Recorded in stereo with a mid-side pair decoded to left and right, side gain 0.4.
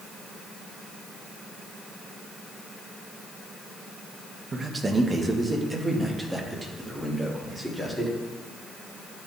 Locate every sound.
4.5 s a man speaking: 35° right, 1.5 m; by 8.2 s 5° left, 3.5 m